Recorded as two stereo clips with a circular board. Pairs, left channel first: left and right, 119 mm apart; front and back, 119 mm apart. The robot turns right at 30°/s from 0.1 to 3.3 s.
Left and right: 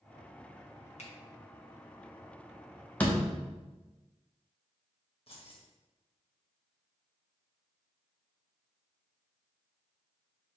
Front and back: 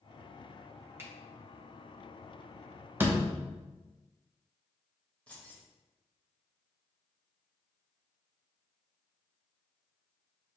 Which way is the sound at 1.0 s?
110° left.